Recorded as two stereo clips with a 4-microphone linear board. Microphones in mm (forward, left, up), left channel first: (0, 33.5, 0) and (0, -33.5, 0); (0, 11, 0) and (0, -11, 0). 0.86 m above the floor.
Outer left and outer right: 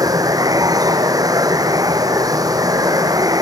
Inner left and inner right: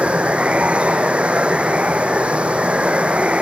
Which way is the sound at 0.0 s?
70° right (ahead or behind).